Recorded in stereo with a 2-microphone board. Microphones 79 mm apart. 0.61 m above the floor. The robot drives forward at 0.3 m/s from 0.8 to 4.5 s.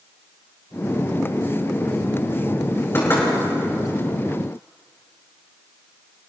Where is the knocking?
30° left (ahead or behind), 6.5 m.